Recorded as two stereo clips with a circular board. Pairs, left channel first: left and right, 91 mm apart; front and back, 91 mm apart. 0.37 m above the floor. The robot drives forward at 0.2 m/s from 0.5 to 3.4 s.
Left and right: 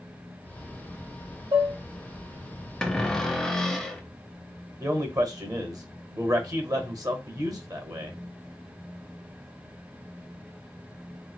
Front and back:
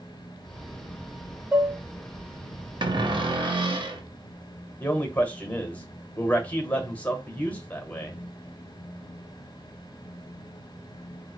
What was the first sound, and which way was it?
Dishes clattering, 105° right.